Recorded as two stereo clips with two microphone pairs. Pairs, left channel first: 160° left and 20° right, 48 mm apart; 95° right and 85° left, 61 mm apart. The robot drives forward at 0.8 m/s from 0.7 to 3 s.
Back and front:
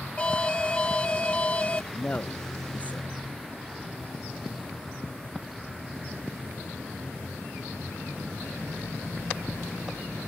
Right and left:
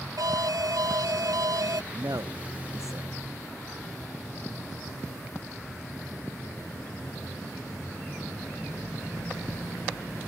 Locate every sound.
0.2 s an alarm: 95° left; by 1.8 s 100° left
1.9 s a man speaking: 100° left; by 3.2 s 105° left